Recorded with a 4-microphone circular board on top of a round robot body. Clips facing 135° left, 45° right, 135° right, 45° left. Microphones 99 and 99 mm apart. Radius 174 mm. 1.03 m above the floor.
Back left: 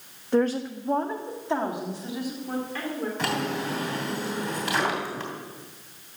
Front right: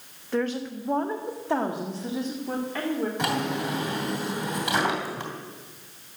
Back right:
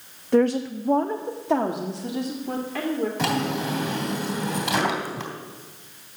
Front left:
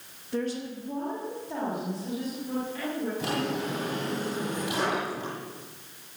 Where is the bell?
No bell in this recording.